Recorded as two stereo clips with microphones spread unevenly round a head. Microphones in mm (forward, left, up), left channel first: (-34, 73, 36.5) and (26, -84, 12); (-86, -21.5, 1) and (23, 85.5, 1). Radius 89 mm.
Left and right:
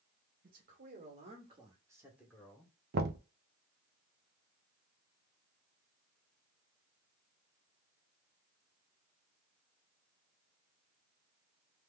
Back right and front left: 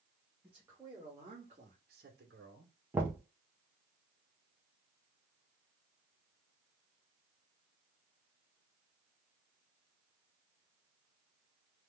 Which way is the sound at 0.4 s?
40° right.